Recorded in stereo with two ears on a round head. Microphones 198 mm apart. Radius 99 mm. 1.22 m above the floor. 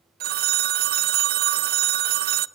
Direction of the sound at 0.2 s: 45° right (ahead or behind).